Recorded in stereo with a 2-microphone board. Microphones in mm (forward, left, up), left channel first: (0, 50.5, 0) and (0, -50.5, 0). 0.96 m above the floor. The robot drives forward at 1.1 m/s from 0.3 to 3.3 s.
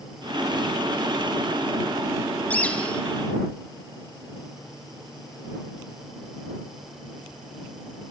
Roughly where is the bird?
Centre.